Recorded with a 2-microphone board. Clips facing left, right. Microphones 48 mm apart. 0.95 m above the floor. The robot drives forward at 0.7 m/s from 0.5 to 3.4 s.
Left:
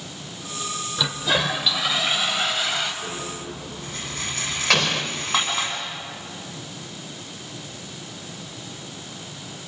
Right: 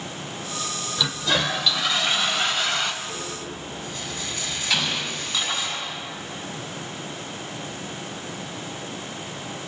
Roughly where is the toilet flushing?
Centre.